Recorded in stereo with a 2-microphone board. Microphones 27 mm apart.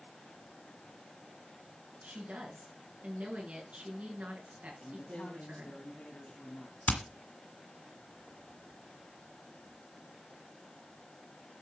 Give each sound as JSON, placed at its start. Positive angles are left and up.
{"t": 2.0, "sound": "a woman speaking", "side_deg": -65, "distance_m": 5.0}
{"t": 4.8, "sound": "a man speaking", "side_deg": 50, "distance_m": 3.0}
{"t": 6.9, "sound": "hammering", "side_deg": 75, "distance_m": 1.9}